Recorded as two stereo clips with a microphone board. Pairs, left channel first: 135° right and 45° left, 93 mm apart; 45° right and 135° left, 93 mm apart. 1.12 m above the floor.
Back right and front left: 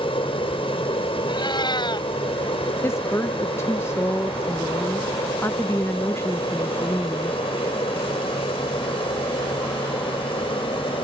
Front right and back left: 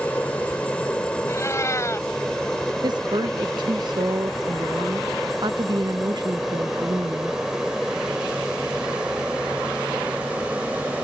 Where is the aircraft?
120° right; by 11.1 s 150° right.